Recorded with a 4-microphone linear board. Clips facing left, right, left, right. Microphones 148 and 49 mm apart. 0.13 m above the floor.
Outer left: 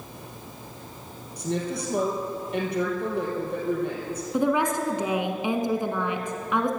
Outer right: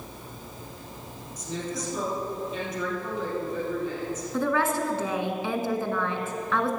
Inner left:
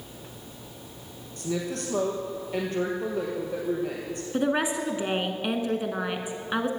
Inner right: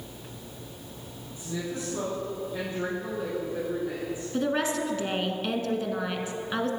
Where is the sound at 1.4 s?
65° left (ahead or behind), 3.5 m.